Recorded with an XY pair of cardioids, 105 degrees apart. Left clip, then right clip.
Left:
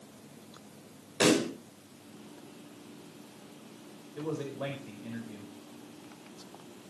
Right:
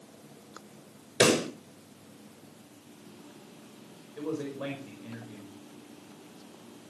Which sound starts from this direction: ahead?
A man speaking, at 4.2 s.